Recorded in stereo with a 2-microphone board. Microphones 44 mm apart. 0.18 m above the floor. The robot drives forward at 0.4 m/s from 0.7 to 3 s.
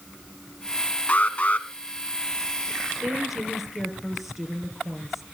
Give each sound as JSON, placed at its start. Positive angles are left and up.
{"t": 1.1, "sound": "an alarm", "side_deg": 30, "distance_m": 1.5}
{"t": 3.0, "sound": "a woman speaking", "side_deg": 0, "distance_m": 3.5}